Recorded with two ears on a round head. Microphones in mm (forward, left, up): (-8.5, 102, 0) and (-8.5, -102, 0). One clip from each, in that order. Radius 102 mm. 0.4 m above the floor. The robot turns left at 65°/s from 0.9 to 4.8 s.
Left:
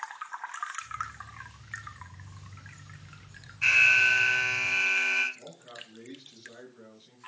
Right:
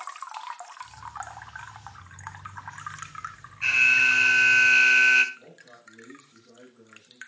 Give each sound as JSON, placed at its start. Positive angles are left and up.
{"t": 3.6, "sound": "an alarm", "azimuth_deg": 5, "distance_m": 1.1}
{"t": 5.3, "sound": "a man speaking", "side_deg": 55, "distance_m": 5.0}